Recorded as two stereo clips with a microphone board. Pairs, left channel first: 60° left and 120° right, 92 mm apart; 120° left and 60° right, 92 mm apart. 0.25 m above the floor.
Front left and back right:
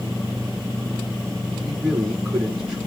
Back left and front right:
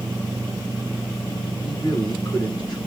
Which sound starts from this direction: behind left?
A man speaking, at 1.6 s.